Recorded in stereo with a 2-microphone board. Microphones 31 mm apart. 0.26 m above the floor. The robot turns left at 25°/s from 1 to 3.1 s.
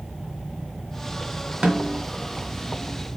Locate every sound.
1.6 s a snare drum: 25° right (ahead or behind), 1.0 m; by 2.0 s 20° right (ahead or behind), 1.0 m